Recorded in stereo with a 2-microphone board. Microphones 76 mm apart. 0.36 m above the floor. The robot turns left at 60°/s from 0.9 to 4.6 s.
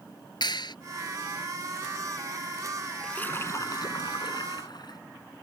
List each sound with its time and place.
0.4 s a clap: 70° left (ahead or behind)
3.0 s a splash: 170° left; by 5.0 s 75° left